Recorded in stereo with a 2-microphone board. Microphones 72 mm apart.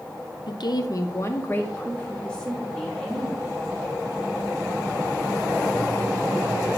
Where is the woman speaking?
80° left, 0.6 m; by 3.6 s 5° left (ahead or behind), 2 m.